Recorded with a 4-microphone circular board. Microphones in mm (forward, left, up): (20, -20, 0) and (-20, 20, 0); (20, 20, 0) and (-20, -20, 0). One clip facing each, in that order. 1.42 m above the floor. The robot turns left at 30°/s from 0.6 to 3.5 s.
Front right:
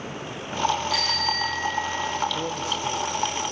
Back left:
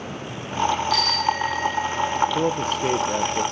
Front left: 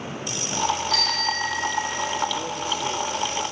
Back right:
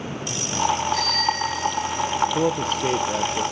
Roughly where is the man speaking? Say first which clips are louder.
Back left 6 dB, back right 6 dB; behind.